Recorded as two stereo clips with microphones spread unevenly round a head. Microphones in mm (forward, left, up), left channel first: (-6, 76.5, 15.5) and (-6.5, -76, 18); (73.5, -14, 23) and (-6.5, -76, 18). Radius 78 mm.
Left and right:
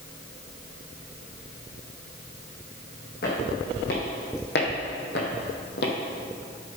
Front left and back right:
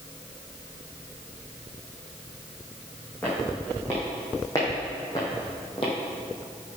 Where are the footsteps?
120° left, 3 m; by 5.9 s 85° left, 1.9 m.